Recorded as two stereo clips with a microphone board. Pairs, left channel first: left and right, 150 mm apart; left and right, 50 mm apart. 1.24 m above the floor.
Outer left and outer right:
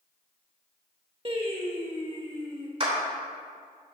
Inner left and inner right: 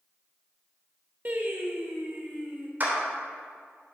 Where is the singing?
40° right (ahead or behind), 1.3 m.